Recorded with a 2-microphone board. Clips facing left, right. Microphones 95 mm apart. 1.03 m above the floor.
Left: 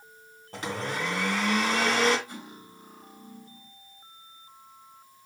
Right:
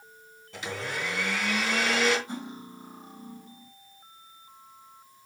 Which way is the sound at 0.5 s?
45° left (ahead or behind).